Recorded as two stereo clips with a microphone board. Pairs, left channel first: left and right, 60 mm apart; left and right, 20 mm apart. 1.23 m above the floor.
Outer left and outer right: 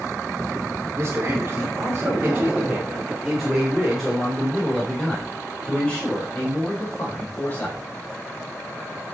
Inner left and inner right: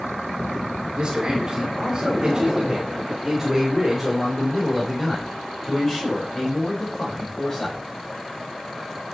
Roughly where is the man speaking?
Right.